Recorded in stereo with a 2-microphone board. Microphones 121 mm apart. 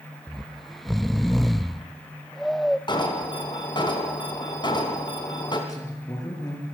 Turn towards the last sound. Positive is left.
turn(degrees=30)  # may be behind; listen again after turning